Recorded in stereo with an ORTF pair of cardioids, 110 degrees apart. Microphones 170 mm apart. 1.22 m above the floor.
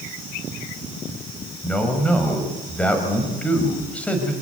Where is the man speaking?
10° left, 5.5 m.